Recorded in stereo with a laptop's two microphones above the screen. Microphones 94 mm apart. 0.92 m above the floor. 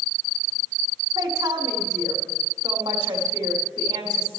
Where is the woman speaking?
50° right (ahead or behind), 2.5 m.